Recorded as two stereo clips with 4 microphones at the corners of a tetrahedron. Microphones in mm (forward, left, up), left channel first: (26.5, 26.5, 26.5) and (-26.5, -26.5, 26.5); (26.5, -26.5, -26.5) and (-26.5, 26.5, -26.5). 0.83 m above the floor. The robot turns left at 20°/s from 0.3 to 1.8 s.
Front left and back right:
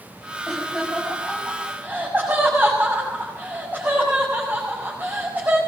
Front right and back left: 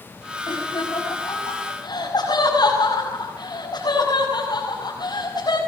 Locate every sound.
0.5 s laughter: 40° right, 7.5 m; by 5.6 s 65° right, 7.5 m